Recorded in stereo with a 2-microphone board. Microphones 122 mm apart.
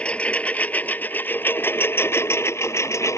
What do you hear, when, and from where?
0.0 s a lawn mower: 10° left (ahead or behind); by 3.2 s 25° left (ahead or behind)